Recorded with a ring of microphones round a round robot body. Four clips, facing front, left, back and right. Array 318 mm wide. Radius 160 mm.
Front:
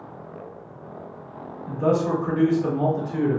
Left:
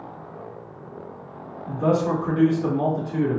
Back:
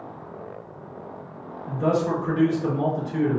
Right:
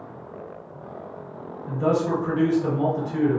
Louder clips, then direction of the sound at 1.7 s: Left 1 dB, front 1 dB; 75° left.